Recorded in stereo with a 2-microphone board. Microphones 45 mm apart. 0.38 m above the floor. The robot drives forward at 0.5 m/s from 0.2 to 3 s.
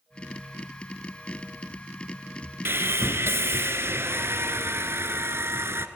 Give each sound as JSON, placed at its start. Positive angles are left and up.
{"t": 2.6, "sound": "sawing", "side_deg": -55, "distance_m": 1.2}